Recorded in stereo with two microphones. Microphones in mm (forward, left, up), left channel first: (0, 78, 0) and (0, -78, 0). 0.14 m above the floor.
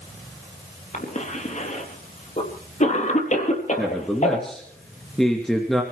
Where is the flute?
I don't hear a flute.